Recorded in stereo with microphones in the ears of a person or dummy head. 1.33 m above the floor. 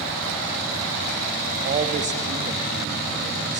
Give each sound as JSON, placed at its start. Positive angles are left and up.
{"t": 1.6, "sound": "a man speaking", "side_deg": -40, "distance_m": 1.7}